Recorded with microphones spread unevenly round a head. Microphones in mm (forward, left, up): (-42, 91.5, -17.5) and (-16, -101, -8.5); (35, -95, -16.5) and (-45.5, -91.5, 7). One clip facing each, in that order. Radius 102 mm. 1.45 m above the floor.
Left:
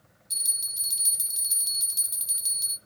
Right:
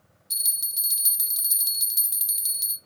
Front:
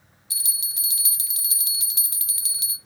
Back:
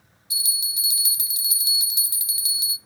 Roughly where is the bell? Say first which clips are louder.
Right 1 dB, back 6 dB; behind right.